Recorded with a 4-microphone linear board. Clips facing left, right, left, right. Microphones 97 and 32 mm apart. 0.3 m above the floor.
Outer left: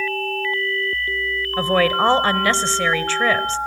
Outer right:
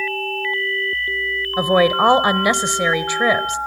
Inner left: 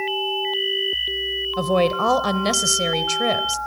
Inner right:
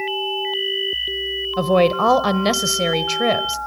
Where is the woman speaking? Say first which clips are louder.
Outer right 3 dB, inner right 4 dB; 15° right (ahead or behind), 1.0 m.